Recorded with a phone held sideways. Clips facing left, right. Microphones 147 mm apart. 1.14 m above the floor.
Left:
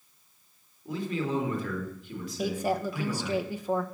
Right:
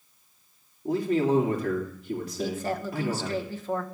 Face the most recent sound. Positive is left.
turn(degrees=10)  # may be behind; listen again after turning